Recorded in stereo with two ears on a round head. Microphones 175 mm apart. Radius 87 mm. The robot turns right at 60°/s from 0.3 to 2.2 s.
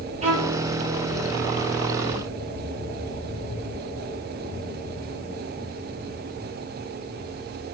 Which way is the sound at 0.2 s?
35° right (ahead or behind).